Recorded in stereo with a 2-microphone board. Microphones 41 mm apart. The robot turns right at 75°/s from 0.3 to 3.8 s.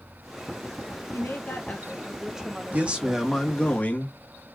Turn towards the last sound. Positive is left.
turn(degrees=45)